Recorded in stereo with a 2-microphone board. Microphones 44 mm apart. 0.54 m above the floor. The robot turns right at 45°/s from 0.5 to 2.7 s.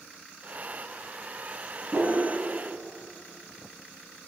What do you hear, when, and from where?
1.9 s a whoosh: 50° right (ahead or behind), 0.8 m; by 2.2 s 65° right (ahead or behind), 0.8 m